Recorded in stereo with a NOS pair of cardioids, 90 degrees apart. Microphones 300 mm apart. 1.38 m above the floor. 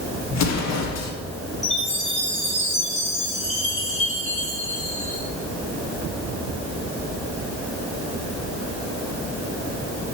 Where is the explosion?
60° left, 2.0 m.